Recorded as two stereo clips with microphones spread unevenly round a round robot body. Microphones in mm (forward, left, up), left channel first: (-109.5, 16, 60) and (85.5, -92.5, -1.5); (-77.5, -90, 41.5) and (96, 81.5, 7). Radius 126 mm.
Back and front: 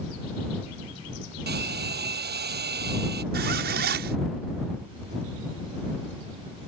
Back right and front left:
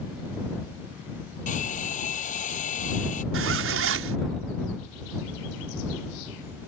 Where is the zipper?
15° left.